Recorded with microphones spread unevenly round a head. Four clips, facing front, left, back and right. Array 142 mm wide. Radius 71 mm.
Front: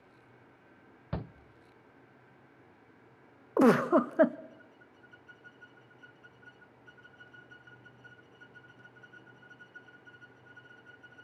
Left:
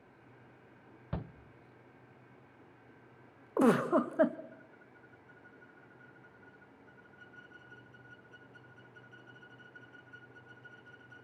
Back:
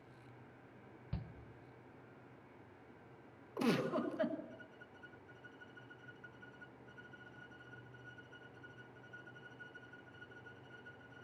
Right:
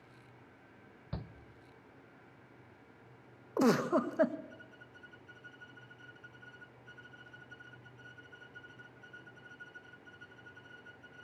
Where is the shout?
15° left, 0.6 m.